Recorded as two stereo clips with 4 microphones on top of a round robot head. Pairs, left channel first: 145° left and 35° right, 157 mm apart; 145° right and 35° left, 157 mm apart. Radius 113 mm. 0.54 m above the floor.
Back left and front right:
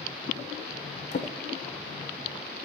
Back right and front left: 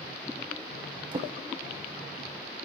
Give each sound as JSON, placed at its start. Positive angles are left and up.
{"t": 1.1, "sound": "a drawer", "azimuth_deg": 100, "distance_m": 0.5}